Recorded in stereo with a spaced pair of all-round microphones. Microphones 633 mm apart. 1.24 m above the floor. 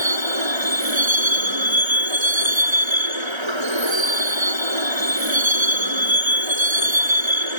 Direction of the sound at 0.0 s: 45° right (ahead or behind).